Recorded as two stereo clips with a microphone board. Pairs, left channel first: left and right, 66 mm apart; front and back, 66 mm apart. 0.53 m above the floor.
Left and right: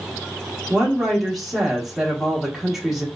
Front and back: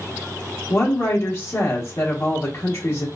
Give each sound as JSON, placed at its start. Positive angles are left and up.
{"t": 0.7, "sound": "a woman speaking", "azimuth_deg": -5, "distance_m": 1.0}